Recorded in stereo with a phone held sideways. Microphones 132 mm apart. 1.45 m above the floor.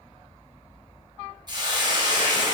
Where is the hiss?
35° right (ahead or behind), 0.8 m.